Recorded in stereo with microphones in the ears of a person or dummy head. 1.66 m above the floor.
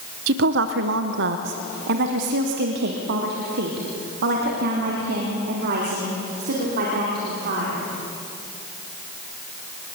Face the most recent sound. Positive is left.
turn(degrees=-55)  # may be behind; listen again after turning